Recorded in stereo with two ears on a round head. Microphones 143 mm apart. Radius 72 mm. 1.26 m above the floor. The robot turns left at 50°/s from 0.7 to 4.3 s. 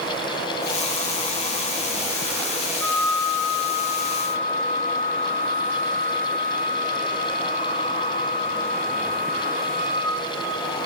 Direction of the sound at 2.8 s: Straight ahead.